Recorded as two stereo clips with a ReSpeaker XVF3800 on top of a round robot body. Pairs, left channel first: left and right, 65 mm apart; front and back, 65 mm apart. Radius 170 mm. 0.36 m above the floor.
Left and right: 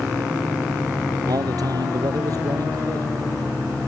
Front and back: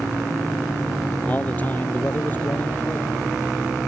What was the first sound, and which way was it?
A man speaking, 65° right.